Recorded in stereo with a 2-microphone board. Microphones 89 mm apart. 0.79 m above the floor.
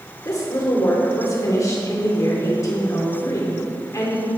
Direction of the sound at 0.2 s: 40° left (ahead or behind).